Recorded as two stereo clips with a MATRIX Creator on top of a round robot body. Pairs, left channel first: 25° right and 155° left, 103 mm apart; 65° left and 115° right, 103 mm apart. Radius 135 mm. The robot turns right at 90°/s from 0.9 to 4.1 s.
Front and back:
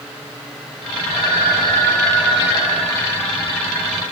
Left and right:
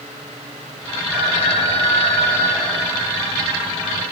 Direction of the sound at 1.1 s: 15° left.